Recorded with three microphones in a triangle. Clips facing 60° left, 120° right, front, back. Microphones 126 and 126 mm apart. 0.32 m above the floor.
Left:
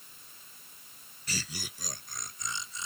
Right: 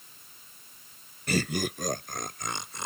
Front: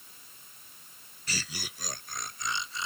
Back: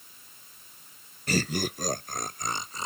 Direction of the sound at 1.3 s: 145° right.